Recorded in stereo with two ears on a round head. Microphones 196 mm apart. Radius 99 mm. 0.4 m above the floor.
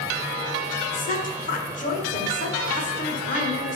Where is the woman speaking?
35° left (ahead or behind), 1.1 m.